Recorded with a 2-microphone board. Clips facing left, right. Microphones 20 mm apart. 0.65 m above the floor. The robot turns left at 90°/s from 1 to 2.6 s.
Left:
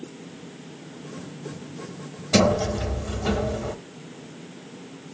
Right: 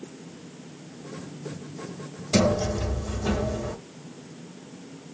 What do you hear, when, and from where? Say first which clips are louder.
2.3 s a sliding door: left 3 dB; 40° left (ahead or behind), 1.1 m; by 3.8 s 15° left (ahead or behind), 1.1 m